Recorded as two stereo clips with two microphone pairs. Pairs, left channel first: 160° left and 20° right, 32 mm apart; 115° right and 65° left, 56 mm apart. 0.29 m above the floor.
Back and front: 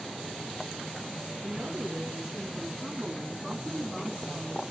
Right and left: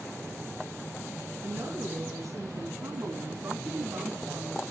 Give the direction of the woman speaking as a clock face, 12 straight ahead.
11 o'clock.